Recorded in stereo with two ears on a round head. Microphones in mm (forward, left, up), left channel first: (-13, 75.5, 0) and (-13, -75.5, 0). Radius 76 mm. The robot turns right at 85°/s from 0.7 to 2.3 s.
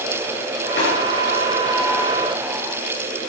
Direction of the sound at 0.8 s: 60° left (ahead or behind).